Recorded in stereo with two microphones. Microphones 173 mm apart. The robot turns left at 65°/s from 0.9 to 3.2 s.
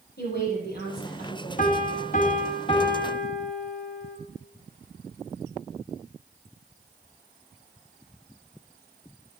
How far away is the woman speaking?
About 5.5 m.